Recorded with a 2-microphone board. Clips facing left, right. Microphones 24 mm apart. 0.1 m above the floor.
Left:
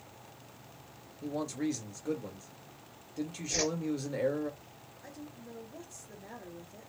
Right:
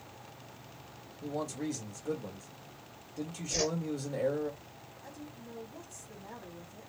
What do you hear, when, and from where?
1.2 s a man speaking: 25° left (ahead or behind), 1.7 m
3.5 s a whoosh: 30° left (ahead or behind), 2.0 m
5.0 s a woman speaking: 45° left (ahead or behind), 2.5 m